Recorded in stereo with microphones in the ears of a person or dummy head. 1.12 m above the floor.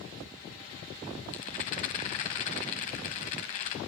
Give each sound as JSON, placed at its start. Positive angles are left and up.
{"t": 1.3, "sound": "a rattle", "side_deg": 40, "distance_m": 1.2}